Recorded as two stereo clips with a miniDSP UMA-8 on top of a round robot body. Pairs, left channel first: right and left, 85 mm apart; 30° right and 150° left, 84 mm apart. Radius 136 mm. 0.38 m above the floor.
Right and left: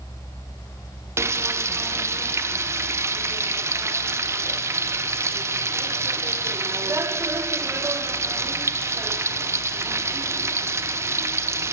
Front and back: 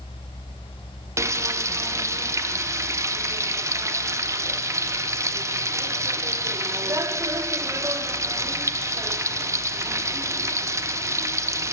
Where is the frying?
125° left, 0.6 m.